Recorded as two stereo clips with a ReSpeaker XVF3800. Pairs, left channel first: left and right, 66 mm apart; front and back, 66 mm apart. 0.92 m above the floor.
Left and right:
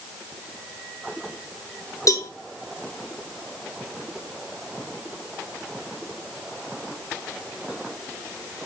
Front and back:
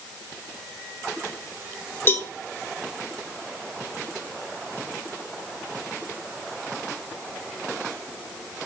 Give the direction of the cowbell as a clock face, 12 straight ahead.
10 o'clock.